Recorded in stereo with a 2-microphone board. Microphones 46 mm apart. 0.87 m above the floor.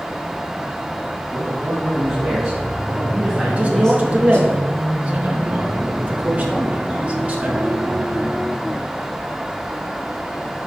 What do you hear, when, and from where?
1.3 s a man speaking: 25° right (ahead or behind), 3.5 m; by 4.5 s 35° left (ahead or behind), 1.4 m
3.5 s a man speaking: 30° right (ahead or behind), 1.7 m